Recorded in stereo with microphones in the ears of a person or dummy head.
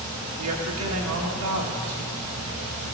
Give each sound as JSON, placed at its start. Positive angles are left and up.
{"t": 0.4, "sound": "a woman speaking", "side_deg": -75, "distance_m": 1.7}